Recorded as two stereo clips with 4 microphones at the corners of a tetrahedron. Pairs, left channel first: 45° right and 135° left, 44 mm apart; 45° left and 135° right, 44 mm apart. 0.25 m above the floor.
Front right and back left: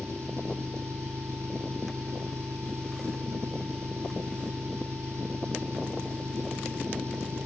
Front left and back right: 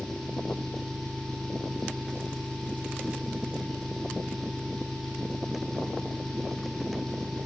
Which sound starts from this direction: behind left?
An engine running, at 0.0 s.